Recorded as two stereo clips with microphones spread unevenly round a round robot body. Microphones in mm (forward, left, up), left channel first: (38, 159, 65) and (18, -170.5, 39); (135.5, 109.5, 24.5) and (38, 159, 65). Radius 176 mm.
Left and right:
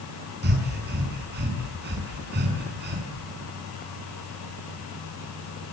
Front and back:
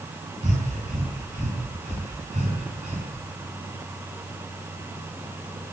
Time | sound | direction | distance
0.4 | breathing | 155° right | 5.5 m